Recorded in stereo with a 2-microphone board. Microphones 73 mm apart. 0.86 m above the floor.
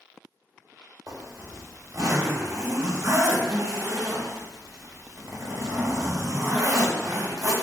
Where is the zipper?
45° right (ahead or behind), 1.0 m.